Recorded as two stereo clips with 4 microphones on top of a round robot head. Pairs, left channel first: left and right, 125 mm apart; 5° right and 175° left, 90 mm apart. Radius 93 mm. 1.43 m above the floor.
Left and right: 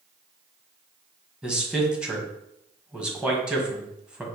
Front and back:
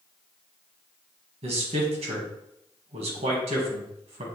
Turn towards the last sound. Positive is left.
turn(degrees=-170)